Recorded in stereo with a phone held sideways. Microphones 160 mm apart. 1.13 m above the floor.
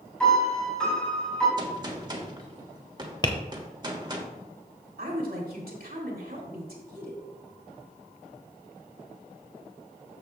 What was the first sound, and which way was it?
A piano, 5° left (ahead or behind).